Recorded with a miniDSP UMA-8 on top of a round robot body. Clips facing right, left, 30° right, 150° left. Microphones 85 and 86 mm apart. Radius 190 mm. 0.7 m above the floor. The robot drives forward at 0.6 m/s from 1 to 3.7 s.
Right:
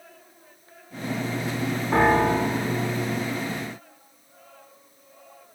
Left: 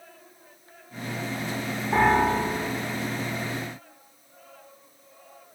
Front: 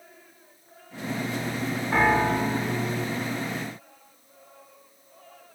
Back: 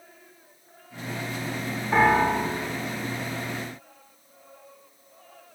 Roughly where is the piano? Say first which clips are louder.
Right 1 dB, back 2 dB; behind right.